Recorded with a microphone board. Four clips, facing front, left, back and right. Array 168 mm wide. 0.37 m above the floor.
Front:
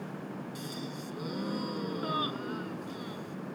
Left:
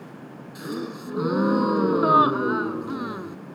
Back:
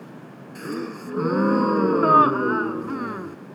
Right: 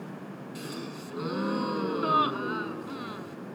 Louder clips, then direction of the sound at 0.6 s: Left 9 dB, back 9 dB; 150° left.